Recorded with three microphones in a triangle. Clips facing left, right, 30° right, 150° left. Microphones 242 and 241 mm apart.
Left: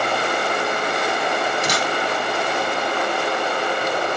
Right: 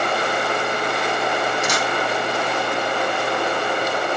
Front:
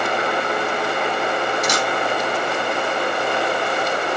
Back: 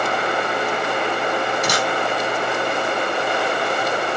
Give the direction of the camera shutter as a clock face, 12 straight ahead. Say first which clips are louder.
Even, even; 7 o'clock.